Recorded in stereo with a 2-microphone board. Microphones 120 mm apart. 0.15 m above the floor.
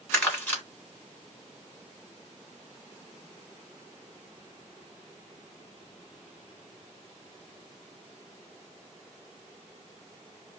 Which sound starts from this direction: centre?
Crumpling, at 0.1 s.